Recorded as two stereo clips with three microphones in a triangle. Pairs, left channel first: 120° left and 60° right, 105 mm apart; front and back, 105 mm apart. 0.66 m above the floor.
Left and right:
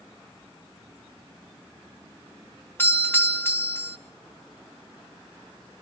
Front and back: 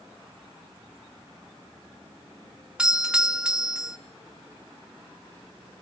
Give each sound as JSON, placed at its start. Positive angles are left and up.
{"t": 2.8, "sound": "a doorbell", "azimuth_deg": 115, "distance_m": 1.7}